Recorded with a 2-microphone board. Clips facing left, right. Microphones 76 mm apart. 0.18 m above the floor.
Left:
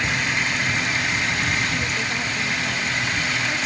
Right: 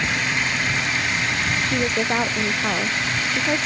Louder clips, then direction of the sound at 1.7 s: Right 4 dB; 45° right (ahead or behind).